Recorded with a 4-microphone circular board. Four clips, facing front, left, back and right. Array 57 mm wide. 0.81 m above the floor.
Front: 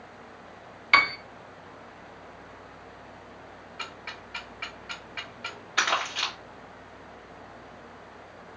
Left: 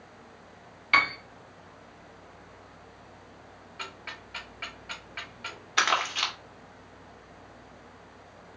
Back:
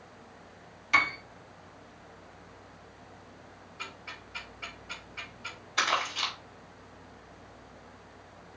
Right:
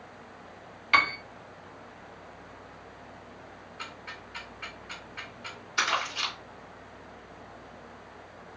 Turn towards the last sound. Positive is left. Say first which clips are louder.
# left 3 dB, front 2 dB
turn(degrees=65)